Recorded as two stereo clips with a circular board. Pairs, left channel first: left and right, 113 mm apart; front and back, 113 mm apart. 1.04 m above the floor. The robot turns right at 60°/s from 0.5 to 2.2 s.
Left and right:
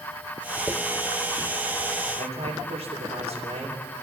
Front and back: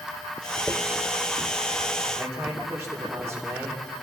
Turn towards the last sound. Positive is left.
turn(degrees=-95)